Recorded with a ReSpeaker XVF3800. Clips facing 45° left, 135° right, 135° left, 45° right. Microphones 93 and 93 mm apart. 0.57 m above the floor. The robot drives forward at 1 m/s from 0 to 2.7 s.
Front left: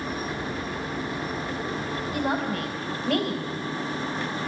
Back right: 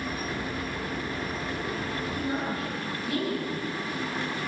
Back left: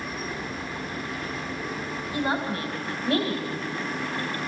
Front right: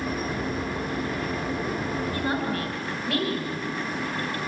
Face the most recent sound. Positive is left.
turn(degrees=75)